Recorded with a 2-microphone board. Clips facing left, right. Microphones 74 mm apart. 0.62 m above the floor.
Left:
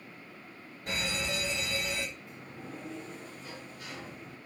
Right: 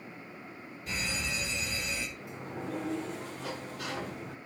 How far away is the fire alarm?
About 7 m.